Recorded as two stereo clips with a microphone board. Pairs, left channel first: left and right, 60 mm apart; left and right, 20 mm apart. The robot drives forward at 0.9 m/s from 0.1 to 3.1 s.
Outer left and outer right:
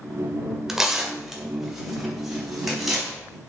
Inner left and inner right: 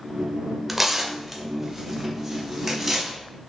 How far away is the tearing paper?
About 1.5 m.